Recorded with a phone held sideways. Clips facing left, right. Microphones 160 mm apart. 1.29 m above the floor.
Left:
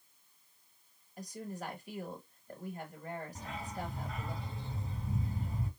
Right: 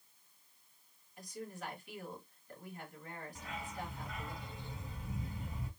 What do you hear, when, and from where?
1.2 s a woman speaking: 40° left (ahead or behind), 1.6 m
3.4 s a dog barking: 35° left (ahead or behind), 2.0 m